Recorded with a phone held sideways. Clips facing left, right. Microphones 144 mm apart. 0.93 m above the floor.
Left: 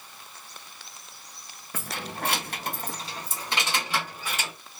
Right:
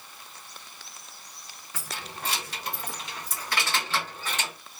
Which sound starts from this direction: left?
Keys jangling, at 1.7 s.